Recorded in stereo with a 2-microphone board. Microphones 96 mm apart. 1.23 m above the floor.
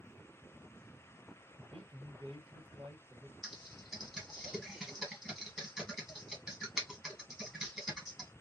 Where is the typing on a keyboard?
5° right (ahead or behind), 1.3 m.